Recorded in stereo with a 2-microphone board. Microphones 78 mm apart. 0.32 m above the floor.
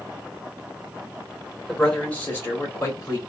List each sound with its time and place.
1.7 s a man speaking: 10° left (ahead or behind), 1.2 m; by 3.2 s 40° left (ahead or behind), 1.4 m